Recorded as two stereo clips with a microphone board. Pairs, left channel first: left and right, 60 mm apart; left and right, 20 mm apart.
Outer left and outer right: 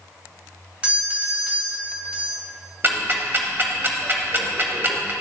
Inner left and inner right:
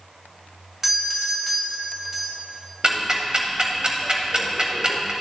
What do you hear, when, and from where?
0.8 s a doorbell: 20° right (ahead or behind), 0.9 m
2.8 s ticking: 35° right (ahead or behind), 0.8 m